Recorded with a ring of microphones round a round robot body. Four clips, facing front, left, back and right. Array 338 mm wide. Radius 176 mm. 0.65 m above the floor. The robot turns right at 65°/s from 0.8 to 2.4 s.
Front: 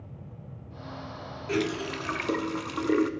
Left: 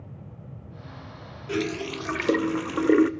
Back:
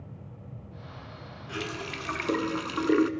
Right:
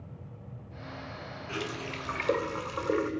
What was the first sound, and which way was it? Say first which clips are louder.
A running tap: left 9 dB, front 7 dB; 40° left.